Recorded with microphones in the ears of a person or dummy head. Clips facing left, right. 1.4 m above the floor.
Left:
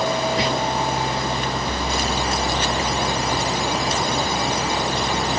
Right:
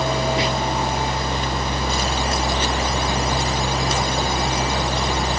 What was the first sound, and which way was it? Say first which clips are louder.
Whispering: even; 15° right (ahead or behind).